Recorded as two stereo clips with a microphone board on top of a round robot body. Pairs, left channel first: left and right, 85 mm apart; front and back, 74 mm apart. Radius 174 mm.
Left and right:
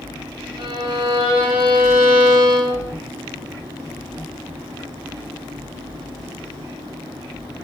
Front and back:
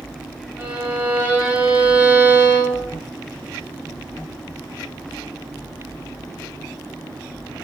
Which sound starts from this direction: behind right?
A violin, at 0.6 s.